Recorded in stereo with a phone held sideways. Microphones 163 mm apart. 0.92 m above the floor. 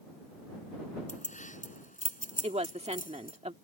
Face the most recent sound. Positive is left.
turn(degrees=-40)  # may be behind; listen again after turning